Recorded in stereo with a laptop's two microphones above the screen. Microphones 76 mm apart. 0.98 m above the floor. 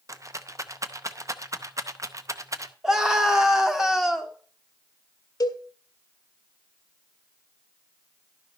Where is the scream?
5° right (ahead or behind), 1.6 m.